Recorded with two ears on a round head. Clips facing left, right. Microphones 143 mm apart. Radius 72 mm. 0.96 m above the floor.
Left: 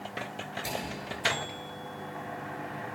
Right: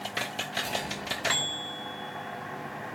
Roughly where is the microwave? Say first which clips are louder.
Even; centre.